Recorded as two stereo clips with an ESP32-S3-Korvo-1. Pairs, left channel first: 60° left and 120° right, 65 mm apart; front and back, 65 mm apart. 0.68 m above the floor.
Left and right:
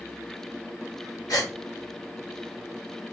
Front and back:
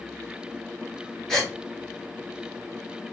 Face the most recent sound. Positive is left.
turn(degrees=80)